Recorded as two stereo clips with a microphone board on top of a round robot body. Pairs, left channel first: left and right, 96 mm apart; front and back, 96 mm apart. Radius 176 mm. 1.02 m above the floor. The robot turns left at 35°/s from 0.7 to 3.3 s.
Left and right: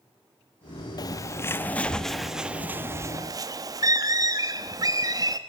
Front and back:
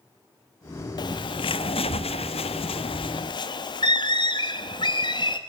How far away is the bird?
About 1.1 m.